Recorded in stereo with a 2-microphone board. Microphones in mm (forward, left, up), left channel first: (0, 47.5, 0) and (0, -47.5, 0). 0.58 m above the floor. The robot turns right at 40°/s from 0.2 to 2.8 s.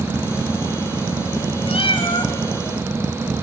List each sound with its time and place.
1.7 s a cat meowing: 70° left (ahead or behind), 1.9 m; by 2.3 s 45° left (ahead or behind), 1.9 m